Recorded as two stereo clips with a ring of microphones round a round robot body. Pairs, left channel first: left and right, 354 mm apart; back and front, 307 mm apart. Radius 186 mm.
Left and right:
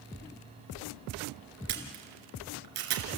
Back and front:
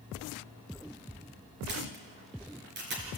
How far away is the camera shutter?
About 2.5 m.